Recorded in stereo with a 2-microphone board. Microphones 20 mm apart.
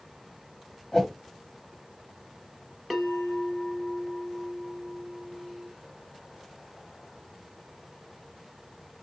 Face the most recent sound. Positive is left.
turn(degrees=0)  # may be behind; listen again after turning